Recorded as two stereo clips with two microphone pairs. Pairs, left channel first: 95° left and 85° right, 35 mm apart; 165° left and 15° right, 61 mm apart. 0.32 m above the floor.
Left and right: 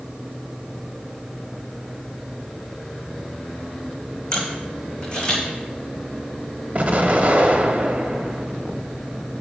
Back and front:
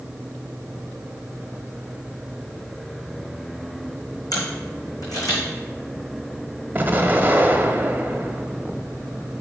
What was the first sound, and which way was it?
A camera shutter, 160° left.